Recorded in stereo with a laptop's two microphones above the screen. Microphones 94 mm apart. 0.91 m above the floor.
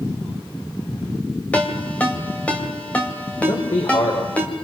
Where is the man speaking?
75° left (ahead or behind), 4 m.